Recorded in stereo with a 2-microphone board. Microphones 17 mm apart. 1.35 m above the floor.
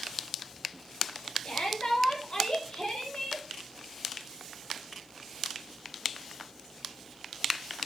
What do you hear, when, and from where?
1.4 s a shout: 65° left (ahead or behind), 5.5 m